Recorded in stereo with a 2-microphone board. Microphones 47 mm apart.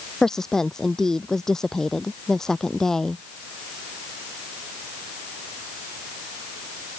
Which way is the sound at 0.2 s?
10° left (ahead or behind).